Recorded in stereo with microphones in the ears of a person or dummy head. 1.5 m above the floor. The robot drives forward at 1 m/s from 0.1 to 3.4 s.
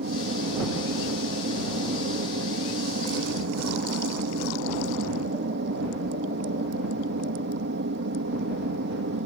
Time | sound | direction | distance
0.0 | an aircraft | 60° right (ahead or behind) | ?